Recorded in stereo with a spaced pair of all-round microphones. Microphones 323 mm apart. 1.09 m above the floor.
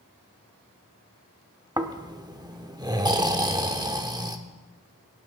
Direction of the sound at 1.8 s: 10° right (ahead or behind).